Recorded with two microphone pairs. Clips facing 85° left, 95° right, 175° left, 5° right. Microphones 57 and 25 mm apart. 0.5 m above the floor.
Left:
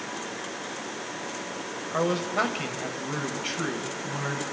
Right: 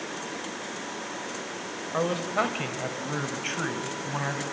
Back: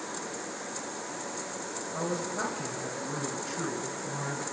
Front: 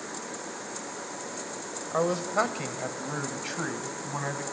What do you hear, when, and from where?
1.9 s a man speaking: 5° right, 2.5 m; by 4.4 s 40° right, 4.5 m